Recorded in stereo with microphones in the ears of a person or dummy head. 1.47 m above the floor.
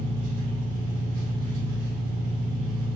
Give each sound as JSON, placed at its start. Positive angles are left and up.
{"t": 0.0, "sound": "an engine running", "side_deg": -35, "distance_m": 0.8}